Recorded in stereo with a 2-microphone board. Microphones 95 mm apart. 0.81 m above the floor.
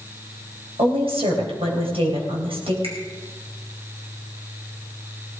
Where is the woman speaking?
75° right (ahead or behind), 4 m.